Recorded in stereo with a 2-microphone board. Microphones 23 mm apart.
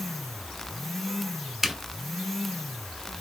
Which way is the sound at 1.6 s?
10° right (ahead or behind).